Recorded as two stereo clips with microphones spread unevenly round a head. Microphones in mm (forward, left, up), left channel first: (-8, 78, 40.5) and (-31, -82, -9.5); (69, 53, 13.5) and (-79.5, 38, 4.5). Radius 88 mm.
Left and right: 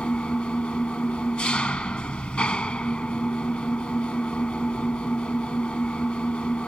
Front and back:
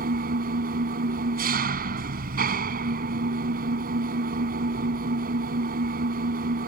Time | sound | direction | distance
0.0 | an engine running | 160° left | ?